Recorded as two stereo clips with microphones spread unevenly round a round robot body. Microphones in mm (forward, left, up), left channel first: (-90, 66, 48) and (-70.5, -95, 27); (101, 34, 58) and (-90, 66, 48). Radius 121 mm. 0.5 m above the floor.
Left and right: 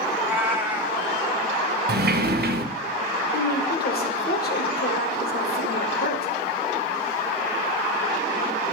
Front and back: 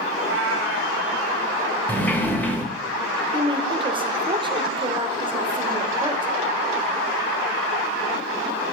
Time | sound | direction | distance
0.1 | a cat meowing | 165° right | 1.4 m
1.9 | a sliding door | 90° right | 0.9 m
3.3 | a woman speaking | 110° left | 1.5 m